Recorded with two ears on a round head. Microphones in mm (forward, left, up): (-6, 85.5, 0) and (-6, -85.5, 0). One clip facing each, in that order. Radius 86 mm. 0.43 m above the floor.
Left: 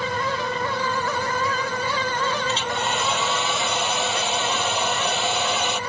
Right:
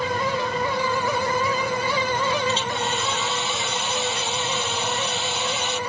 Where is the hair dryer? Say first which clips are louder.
Even; 50° left (ahead or behind).